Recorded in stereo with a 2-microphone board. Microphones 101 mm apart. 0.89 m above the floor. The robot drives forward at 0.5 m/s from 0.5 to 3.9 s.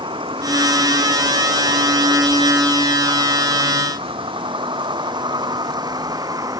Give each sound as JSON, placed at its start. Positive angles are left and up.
{"t": 0.0, "sound": "a vehicle", "side_deg": -65}